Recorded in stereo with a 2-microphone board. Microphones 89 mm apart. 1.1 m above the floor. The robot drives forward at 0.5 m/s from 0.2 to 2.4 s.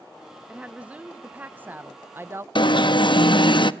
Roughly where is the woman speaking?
Centre.